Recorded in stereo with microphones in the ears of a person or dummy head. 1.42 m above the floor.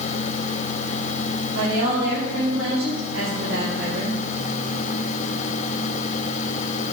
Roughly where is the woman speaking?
Right.